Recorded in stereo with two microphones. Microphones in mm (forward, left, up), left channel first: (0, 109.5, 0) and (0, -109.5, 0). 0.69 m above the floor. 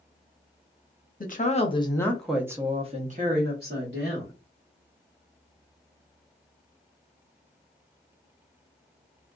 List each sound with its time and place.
1.2 s a woman speaking: 40° left (ahead or behind), 1.0 m; by 4.3 s 60° right (ahead or behind), 1.4 m